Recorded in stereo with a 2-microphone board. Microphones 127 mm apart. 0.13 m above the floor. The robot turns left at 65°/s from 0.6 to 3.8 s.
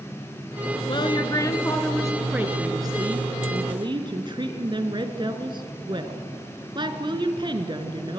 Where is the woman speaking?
75° left, 1.4 m; by 8.2 s 115° right, 1.4 m.